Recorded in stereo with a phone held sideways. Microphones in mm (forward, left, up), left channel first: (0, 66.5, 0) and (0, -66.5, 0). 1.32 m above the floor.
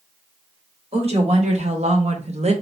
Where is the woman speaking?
55° right (ahead or behind), 1.5 m.